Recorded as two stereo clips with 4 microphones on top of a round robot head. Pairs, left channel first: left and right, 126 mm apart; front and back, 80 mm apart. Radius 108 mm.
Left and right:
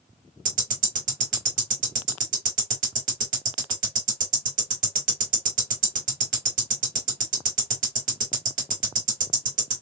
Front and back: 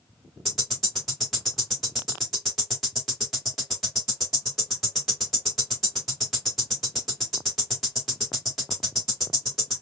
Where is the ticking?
90° right, 1.6 m.